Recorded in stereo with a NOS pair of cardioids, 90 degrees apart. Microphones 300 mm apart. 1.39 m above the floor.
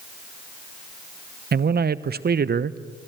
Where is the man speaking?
30° right, 1.0 m.